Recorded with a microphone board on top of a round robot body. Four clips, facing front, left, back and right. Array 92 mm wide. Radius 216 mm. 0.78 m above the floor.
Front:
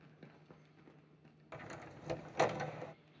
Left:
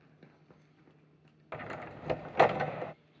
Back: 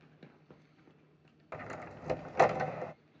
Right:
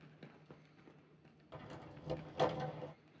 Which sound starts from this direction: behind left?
A door slam, at 1.5 s.